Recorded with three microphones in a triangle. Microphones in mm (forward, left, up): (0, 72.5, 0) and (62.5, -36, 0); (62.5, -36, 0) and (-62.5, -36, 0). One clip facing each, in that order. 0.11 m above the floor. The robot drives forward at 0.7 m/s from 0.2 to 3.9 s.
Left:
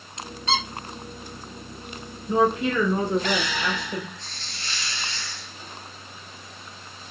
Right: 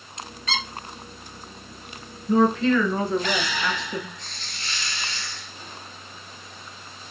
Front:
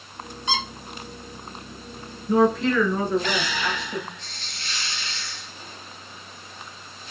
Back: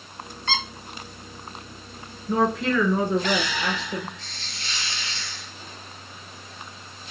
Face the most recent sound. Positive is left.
turn(degrees=180)